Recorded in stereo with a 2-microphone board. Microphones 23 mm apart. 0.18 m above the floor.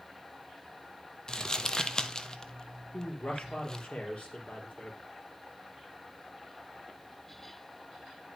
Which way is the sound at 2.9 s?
60° left (ahead or behind).